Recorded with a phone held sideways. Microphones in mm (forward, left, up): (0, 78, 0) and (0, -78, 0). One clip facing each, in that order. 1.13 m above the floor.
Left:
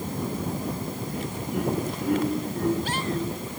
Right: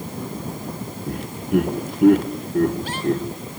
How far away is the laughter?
About 1.6 m.